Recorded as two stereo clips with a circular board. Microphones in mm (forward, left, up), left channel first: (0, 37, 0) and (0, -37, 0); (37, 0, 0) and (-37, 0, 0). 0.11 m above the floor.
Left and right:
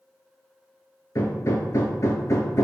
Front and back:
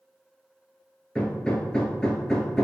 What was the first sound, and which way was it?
Hammering, 75° left.